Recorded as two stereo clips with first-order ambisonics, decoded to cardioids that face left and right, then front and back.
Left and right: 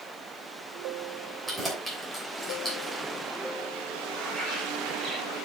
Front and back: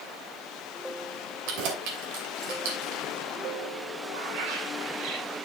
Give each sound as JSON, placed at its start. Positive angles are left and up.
{"t": 1.5, "sound": "keys jangling", "azimuth_deg": -175, "distance_m": 2.5}
{"t": 4.1, "sound": "a bird", "azimuth_deg": -165, "distance_m": 4.0}